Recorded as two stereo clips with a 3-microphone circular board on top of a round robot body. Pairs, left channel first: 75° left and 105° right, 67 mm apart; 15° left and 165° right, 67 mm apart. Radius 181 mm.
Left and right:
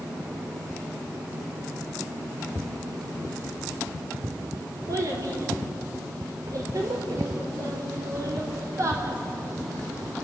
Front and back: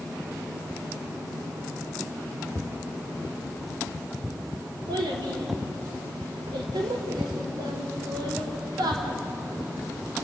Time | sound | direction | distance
4.9 | a child speaking | 150° right | 3 m